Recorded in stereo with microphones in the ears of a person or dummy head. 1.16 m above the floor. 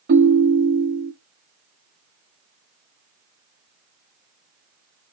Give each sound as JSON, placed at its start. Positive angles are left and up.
{"t": 0.1, "sound": "a ringtone", "side_deg": -55, "distance_m": 0.9}